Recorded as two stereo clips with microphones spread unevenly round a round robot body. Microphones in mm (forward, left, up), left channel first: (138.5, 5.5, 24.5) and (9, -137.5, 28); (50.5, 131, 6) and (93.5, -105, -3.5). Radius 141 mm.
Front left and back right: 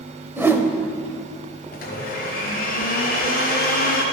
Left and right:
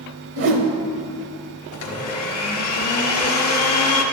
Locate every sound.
0.4 s a whoosh: 55° right, 0.9 m
1.7 s a blender: 90° left, 1.1 m